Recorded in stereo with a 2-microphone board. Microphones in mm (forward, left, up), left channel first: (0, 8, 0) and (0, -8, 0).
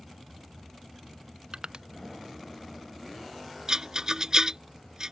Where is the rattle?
45° right (ahead or behind).